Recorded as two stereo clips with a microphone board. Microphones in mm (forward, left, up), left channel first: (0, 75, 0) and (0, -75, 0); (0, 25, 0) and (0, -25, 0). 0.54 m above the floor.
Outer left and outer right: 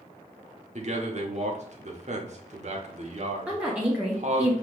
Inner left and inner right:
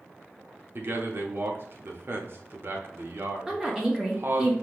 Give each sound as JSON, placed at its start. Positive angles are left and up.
{"t": 0.8, "sound": "a man speaking", "side_deg": -50, "distance_m": 0.9}
{"t": 3.5, "sound": "a woman speaking", "side_deg": -10, "distance_m": 0.8}